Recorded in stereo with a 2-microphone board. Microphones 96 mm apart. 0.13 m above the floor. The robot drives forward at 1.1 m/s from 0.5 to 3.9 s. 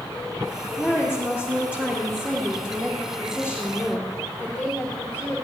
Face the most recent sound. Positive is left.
turn(degrees=-10)  # may be behind; listen again after turning